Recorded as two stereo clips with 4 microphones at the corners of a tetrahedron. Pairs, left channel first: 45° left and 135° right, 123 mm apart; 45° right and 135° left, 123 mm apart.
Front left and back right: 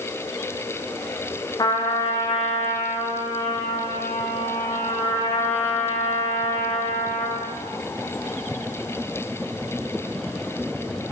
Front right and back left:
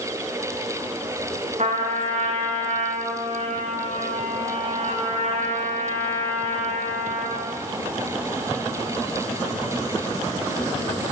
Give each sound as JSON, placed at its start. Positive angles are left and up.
{"t": 1.6, "sound": "a trumpet", "azimuth_deg": 105, "distance_m": 8.5}